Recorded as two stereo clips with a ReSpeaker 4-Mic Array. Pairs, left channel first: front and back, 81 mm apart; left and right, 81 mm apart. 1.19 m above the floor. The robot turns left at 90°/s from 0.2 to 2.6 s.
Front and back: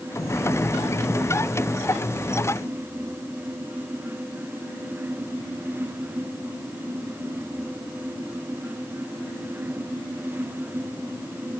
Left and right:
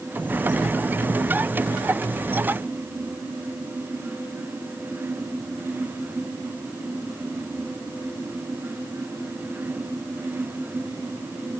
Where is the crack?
No crack in this recording.